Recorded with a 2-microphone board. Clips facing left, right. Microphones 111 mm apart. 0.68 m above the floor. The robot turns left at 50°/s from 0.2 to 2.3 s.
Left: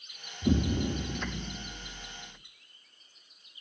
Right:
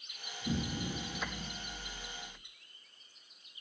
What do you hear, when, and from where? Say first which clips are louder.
0.4 s an explosion: left 9 dB; 90° left, 0.9 m; by 2.4 s 5° right, 0.9 m